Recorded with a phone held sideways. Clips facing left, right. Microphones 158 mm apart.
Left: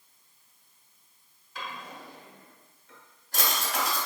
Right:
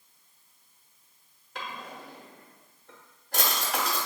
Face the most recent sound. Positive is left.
turn(degrees=-60)  # may be behind; listen again after turning